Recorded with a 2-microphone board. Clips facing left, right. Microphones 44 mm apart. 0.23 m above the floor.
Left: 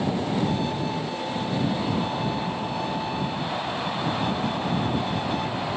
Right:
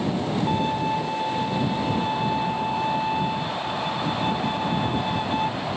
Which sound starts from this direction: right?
A violin, at 0.5 s.